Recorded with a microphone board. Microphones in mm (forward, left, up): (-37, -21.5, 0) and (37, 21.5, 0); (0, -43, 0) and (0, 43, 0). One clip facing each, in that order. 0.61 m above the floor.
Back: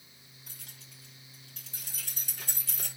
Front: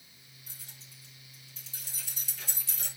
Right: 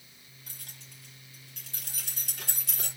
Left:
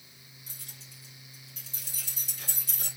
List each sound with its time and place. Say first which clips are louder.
0.5 s keys jangling: back 1 dB, right 1 dB; 125° right, 7.5 m; by 2.9 s 110° right, 7.5 m